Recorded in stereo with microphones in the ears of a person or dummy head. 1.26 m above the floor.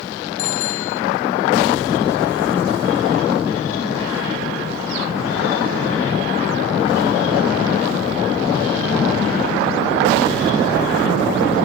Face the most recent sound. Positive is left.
turn(degrees=90)